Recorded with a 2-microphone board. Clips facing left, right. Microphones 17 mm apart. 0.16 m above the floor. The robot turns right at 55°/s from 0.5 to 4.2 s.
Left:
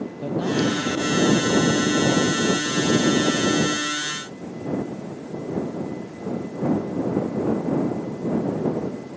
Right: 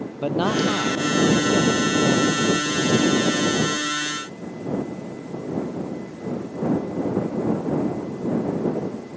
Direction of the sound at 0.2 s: 60° right.